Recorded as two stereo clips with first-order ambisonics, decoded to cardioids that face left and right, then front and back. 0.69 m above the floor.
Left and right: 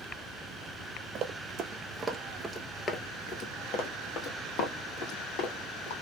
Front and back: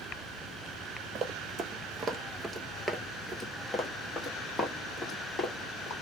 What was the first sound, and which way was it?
Running footsteps, 125° right.